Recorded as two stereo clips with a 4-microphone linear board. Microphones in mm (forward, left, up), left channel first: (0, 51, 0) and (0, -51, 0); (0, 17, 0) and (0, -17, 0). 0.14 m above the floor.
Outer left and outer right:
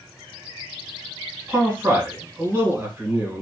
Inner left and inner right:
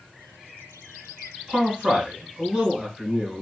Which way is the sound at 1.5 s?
20° right (ahead or behind).